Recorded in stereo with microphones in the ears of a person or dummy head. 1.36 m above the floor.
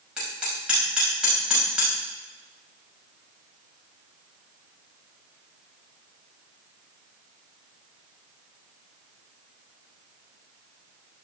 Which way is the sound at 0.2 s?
10° right (ahead or behind).